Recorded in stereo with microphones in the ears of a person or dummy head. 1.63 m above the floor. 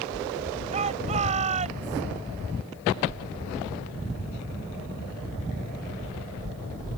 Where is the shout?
35° right (ahead or behind); by 2.0 s 40° right (ahead or behind).